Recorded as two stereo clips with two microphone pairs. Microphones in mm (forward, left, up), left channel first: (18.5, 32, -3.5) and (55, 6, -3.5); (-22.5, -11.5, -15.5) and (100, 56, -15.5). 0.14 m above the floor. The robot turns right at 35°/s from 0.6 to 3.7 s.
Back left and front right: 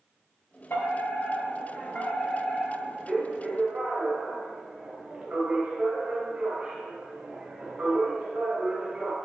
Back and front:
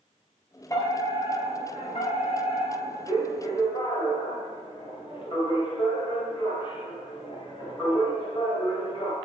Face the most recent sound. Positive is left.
turn(degrees=-110)